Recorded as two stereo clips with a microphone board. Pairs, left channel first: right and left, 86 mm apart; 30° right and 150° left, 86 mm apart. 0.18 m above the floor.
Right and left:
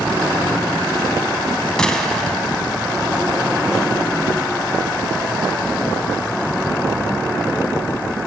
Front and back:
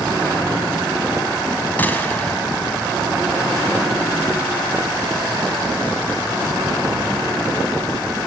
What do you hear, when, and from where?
1.8 s a gunshot: 20° right, 1.4 m